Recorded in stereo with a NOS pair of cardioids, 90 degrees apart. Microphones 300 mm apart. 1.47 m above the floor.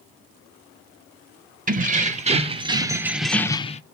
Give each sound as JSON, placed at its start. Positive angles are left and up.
{"t": 1.7, "sound": "keys jangling", "azimuth_deg": -30, "distance_m": 1.3}